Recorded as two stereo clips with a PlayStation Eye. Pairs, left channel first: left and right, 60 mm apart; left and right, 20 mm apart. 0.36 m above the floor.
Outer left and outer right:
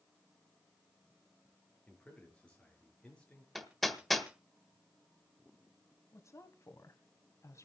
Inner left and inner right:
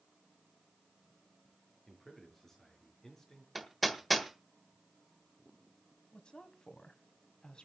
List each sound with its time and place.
1.9 s a man speaking: 15° left (ahead or behind), 6 m
3.5 s hammering: centre (ahead or behind), 1.6 m
6.1 s a woman speaking: 55° left (ahead or behind), 1.9 m